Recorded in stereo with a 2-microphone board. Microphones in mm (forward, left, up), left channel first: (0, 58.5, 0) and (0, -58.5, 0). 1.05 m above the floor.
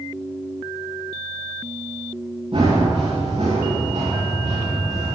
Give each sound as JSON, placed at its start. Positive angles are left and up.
{"t": 2.5, "sound": "running footsteps", "side_deg": -55, "distance_m": 5.0}